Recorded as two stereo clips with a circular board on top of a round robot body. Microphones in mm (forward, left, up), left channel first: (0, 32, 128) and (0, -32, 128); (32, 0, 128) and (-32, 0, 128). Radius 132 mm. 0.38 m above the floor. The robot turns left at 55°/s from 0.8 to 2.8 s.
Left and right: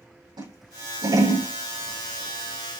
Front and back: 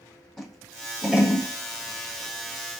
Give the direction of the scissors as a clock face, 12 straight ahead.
3 o'clock.